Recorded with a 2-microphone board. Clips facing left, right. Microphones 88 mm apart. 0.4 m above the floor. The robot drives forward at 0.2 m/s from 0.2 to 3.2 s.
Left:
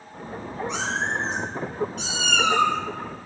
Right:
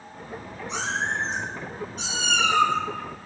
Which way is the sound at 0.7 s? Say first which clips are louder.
Even; 80° left.